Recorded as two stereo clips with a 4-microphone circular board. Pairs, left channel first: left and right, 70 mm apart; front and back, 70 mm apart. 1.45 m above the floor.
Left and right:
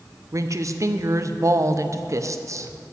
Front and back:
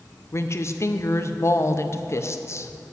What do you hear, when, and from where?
0.3 s a woman speaking: 45° right, 0.6 m